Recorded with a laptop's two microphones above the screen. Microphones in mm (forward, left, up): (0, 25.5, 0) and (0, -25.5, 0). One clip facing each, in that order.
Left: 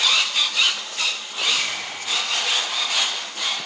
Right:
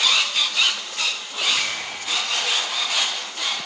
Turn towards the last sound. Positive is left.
turn(degrees=-40)  # may be behind; listen again after turning